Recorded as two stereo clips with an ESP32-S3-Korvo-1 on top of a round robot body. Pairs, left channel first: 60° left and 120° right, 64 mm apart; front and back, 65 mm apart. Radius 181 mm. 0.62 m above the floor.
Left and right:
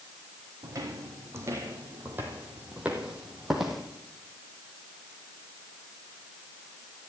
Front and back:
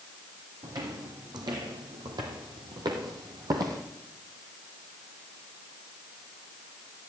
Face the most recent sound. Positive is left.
turn(degrees=150)